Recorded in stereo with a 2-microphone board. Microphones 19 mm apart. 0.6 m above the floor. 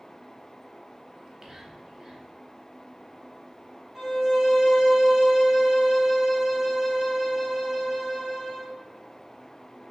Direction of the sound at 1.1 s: 30° right (ahead or behind).